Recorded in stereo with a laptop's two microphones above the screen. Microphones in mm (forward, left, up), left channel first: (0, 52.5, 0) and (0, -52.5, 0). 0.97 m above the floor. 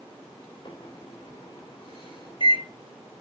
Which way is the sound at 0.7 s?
55° left (ahead or behind).